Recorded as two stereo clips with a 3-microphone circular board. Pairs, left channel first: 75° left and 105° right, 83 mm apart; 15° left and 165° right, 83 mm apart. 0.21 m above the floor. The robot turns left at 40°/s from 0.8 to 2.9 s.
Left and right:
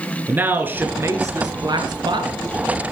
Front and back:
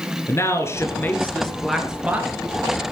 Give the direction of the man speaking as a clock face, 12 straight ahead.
1 o'clock.